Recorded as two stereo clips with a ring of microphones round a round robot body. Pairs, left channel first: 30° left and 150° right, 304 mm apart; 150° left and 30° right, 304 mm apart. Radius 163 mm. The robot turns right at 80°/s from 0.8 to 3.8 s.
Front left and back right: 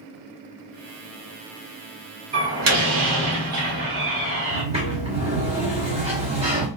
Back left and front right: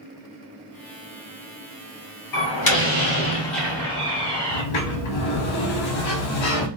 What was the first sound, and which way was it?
A door slam, 140° left.